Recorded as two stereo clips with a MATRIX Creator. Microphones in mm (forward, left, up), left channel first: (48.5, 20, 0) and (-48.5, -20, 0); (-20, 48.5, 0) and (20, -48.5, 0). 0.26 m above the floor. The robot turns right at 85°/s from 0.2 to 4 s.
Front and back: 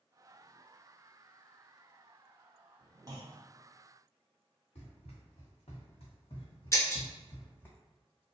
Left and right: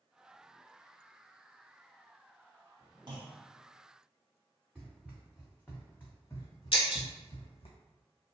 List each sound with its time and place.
3.1 s a clunk: 105° right, 0.6 m; by 3.4 s 80° right, 0.6 m
4.8 s running footsteps: 20° left, 1.6 m; by 7.7 s 100° left, 0.9 m
6.7 s breaking glass: 85° left, 0.6 m